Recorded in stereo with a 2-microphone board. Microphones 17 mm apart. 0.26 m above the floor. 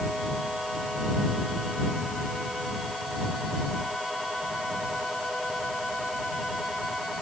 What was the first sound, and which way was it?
Only background noise.